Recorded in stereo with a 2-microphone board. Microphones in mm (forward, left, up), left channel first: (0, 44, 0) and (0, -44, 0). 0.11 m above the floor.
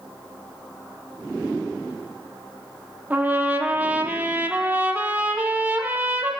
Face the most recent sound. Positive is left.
turn(degrees=-20)  # may be behind; listen again after turning